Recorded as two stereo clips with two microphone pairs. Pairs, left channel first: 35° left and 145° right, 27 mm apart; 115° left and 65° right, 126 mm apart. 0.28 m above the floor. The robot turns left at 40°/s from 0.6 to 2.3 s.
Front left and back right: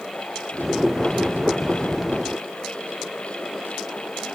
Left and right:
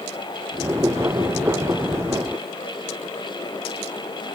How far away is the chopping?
No chopping in this recording.